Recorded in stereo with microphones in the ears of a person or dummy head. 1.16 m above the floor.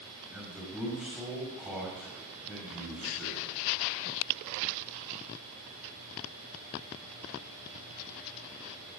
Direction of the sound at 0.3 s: 5° right (ahead or behind).